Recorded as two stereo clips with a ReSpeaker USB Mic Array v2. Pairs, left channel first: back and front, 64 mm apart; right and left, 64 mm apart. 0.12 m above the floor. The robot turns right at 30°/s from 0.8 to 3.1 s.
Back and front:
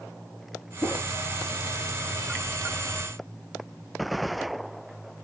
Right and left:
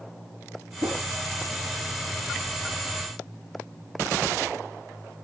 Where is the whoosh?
60° left, 3.5 m; by 1.0 s 70° left, 3.5 m.